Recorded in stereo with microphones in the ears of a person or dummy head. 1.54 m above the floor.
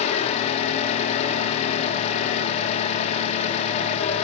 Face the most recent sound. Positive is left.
turn(degrees=40)  # may be behind; listen again after turning